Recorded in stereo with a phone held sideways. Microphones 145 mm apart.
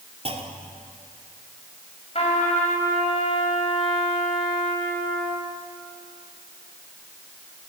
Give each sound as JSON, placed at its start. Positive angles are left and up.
{"t": 0.2, "sound": "a clunk", "side_deg": -45, "distance_m": 2.5}
{"t": 2.1, "sound": "a trumpet", "side_deg": 45, "distance_m": 5.5}